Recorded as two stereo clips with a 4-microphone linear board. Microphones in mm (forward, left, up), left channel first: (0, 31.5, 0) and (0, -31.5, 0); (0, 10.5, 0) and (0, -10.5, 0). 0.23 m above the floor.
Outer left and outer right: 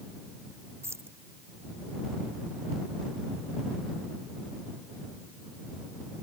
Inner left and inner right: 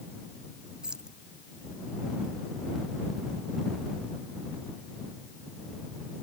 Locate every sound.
0.8 s keys jangling: 40° right (ahead or behind)